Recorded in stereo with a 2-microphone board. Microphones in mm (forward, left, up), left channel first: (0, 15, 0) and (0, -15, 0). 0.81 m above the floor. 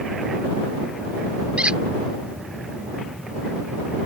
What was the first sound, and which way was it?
A squeak, 35° right (ahead or behind).